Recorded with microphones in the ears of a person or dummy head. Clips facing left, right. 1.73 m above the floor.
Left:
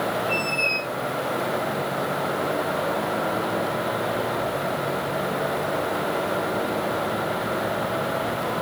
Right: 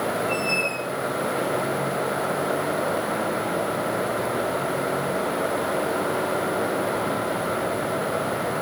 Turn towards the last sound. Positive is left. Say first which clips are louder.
# right 1 dB
turn(degrees=-25)  # may be behind; listen again after turning